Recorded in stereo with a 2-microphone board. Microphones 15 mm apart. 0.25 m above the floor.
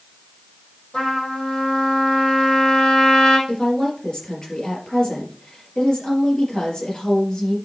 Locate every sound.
0.9 s a trumpet: 45° left (ahead or behind), 5.5 m
3.5 s a woman speaking: 45° left (ahead or behind), 4 m